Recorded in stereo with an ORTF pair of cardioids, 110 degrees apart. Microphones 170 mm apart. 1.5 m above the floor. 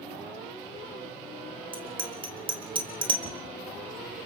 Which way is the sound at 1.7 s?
30° right.